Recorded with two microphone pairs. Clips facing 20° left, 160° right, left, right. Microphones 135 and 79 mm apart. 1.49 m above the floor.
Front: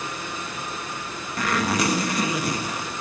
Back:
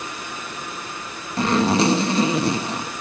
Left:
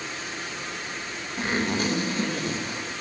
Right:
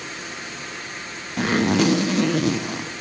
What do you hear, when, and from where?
1.4 s a zipper: 95° right, 1.4 m